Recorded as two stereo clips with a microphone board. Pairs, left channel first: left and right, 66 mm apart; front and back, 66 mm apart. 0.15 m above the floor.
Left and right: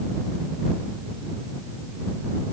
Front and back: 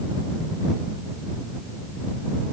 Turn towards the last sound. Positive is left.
No sound to turn to.